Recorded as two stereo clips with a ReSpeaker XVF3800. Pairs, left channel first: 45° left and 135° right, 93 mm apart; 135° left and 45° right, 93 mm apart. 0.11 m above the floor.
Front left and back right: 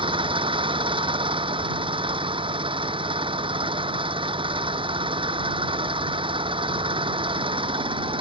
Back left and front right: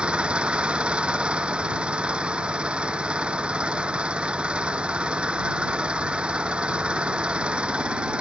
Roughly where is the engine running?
Behind right.